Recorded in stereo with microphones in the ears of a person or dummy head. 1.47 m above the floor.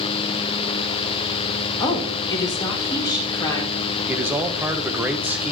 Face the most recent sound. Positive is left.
turn(degrees=-10)  # may be behind; listen again after turning